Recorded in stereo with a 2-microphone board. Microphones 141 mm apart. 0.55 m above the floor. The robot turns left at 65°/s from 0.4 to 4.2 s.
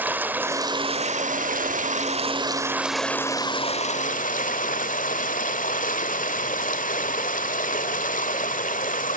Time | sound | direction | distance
0.0 | running water | 15° right | 1.5 m